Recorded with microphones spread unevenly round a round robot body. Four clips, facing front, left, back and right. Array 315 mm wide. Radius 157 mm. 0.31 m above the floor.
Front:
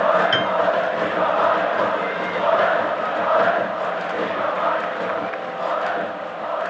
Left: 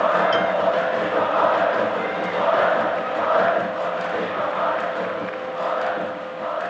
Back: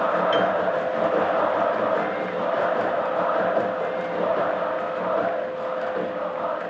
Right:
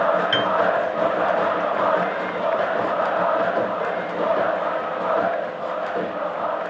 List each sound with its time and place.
0.3 s a piano: 30° right